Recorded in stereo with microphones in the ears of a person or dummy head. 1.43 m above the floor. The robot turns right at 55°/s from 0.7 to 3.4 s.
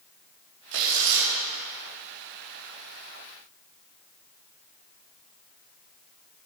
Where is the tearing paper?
100° right, 3.5 m; by 1.3 s 65° right, 3.5 m.